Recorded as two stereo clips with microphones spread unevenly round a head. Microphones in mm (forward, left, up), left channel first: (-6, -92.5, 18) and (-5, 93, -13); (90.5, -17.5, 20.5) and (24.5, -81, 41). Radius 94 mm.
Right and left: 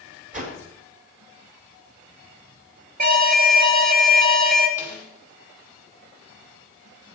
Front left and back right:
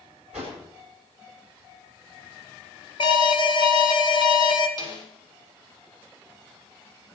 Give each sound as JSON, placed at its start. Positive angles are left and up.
{"t": 0.3, "sound": "a whoosh", "azimuth_deg": 140, "distance_m": 4.0}
{"t": 3.0, "sound": "an alarm", "azimuth_deg": 60, "distance_m": 2.0}
{"t": 4.8, "sound": "a snare drum", "azimuth_deg": 10, "distance_m": 5.5}